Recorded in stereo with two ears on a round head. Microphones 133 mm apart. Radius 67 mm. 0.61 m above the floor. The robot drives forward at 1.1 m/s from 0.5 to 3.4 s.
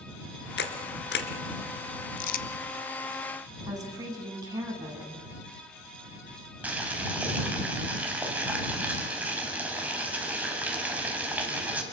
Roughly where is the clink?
I don't hear a clink.